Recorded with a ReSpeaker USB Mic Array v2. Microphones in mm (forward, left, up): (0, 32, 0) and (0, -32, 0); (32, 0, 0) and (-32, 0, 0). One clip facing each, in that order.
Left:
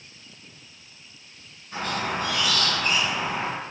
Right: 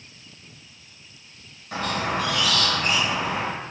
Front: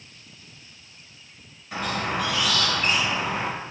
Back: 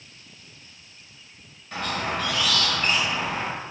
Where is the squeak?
85° right, 2.5 m.